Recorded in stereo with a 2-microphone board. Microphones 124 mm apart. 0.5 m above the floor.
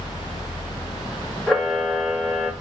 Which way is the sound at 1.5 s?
Centre (ahead or behind).